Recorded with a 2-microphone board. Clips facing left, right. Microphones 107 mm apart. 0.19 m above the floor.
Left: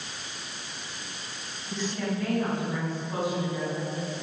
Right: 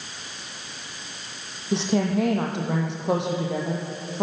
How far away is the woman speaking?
About 7 m.